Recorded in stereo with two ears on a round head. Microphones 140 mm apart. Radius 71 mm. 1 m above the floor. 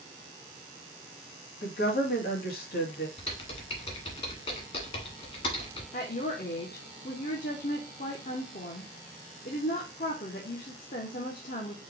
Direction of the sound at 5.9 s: 55° left (ahead or behind).